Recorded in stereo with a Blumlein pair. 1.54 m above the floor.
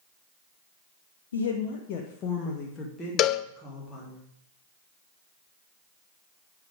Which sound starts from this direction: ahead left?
A cowbell, at 3.2 s.